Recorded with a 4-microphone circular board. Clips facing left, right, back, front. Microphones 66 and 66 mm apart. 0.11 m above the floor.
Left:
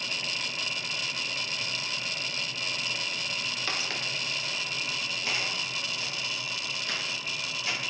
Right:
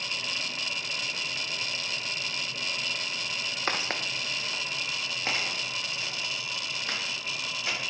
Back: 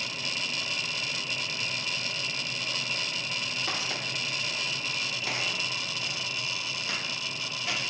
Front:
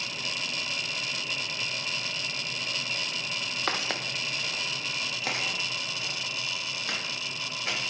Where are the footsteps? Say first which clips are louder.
Right 5 dB, front 6 dB; 35° right, 0.5 m; by 7.8 s 30° right, 3 m.